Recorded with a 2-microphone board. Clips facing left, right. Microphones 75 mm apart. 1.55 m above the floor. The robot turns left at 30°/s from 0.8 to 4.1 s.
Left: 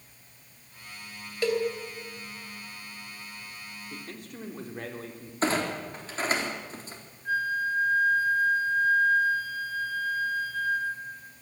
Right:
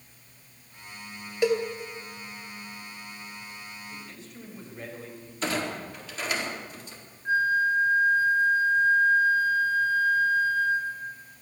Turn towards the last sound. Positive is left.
turn(degrees=-25)  # may be behind; listen again after turning